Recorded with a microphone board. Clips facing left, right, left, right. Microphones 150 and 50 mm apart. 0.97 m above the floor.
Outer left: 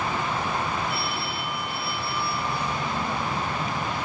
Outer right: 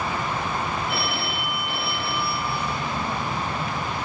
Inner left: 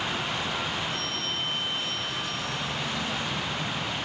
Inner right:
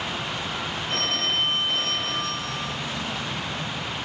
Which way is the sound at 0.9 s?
75° right (ahead or behind).